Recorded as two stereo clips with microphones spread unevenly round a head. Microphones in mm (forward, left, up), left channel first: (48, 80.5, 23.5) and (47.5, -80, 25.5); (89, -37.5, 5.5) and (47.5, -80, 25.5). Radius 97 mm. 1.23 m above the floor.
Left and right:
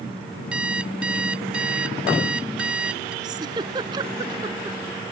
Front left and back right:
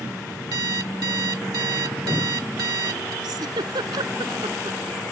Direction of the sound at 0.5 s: 175° right.